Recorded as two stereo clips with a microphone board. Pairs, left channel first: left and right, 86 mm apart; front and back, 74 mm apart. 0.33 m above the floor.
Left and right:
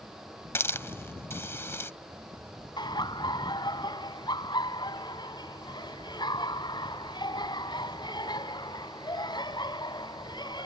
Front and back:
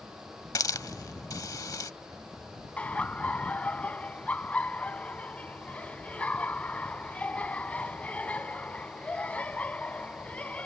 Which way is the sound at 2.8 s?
70° left.